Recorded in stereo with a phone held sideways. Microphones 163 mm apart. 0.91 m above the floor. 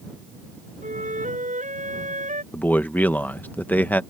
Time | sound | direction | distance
0.8 | a flute | 50° right (ahead or behind) | ?
2.5 | a man speaking | 10° left (ahead or behind) | ?